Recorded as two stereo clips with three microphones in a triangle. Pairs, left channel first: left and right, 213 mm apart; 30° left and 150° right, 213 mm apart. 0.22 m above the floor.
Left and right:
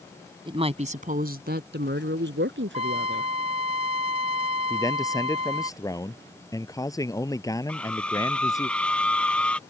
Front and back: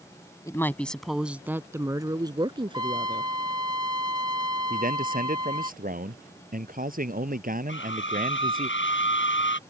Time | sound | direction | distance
0.5 | a woman speaking | 40° right | ?
2.7 | a trumpet | 100° right | ?
4.7 | a man speaking | 165° left | ?
7.7 | a scream | 5° left | ?